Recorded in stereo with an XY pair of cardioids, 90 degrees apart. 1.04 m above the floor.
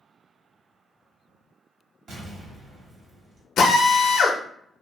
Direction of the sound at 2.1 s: 70° right.